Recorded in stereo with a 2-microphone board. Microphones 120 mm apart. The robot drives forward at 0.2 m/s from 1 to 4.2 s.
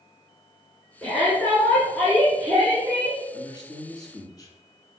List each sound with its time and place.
1.0 s a shout: 15° left (ahead or behind), 3 m
3.3 s a man speaking: 35° left (ahead or behind), 2.0 m